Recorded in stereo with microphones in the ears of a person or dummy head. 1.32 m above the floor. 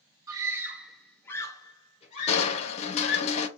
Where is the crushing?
40° left (ahead or behind), 0.5 m.